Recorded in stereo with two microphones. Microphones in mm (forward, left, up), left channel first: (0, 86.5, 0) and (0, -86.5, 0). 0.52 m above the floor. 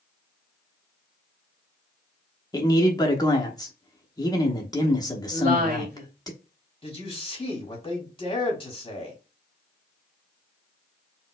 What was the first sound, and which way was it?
A man speaking, 25° left (ahead or behind).